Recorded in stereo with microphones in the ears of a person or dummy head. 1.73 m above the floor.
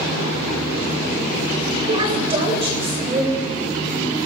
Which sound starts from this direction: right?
A woman speaking, at 1.9 s.